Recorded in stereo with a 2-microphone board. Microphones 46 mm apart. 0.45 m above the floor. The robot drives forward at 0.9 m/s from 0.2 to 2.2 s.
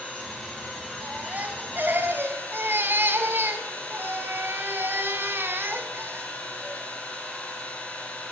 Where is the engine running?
20° left (ahead or behind), 4 m; by 8.3 s 30° left (ahead or behind), 2.5 m.